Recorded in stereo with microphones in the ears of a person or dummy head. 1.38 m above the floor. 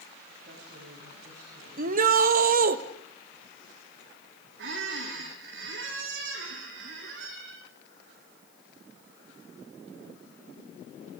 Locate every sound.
0.4 s a woman speaking: 70° right (ahead or behind), 8 m
1.8 s a shout: 50° right (ahead or behind), 1.6 m
4.6 s a squeak: 75° right (ahead or behind), 4.5 m